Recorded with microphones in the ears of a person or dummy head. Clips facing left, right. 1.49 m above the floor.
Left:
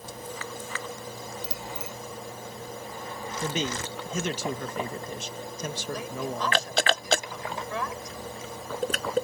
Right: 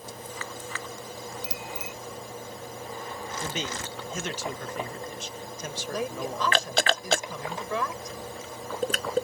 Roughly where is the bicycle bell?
Centre.